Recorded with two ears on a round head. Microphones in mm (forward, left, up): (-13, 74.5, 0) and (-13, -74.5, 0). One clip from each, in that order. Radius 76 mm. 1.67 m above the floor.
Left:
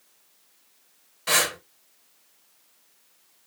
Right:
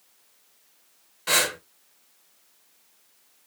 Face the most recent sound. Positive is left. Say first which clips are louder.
# even
turn(degrees=5)  # may be behind; listen again after turning